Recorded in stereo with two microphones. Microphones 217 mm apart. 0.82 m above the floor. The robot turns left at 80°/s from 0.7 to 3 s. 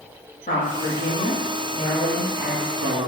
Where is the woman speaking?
130° left, 1.4 m; by 3.1 s 55° right, 1.4 m.